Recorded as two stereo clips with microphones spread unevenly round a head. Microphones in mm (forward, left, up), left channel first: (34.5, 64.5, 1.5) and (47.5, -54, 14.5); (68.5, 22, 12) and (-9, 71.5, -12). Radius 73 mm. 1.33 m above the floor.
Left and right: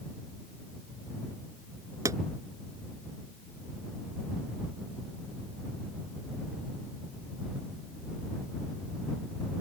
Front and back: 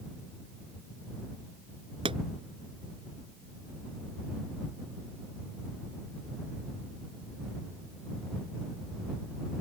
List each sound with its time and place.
2.0 s a pop: 155° right